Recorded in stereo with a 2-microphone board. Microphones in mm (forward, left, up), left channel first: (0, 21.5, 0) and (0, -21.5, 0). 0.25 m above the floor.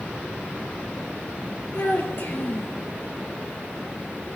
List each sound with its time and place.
1.7 s a child speaking: 45° left (ahead or behind), 3.5 m